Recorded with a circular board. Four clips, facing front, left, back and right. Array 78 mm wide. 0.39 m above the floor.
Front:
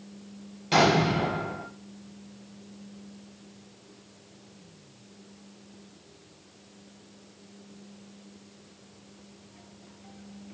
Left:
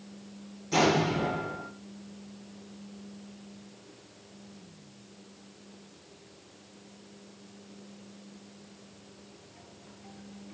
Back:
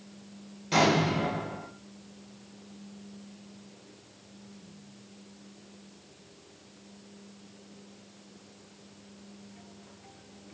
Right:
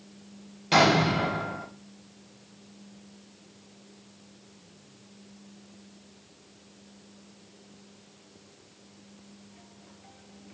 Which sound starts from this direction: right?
An explosion, at 0.7 s.